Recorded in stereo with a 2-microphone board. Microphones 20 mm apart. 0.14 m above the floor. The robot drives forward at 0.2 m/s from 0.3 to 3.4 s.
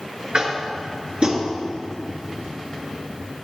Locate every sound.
0.3 s tapping: 50° right (ahead or behind), 1.7 m